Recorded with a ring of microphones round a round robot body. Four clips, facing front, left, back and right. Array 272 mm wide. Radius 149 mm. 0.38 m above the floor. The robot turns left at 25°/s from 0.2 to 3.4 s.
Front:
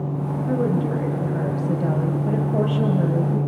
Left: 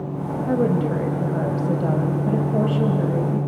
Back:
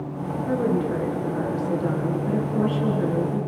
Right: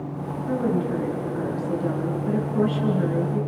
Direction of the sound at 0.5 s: 95° left.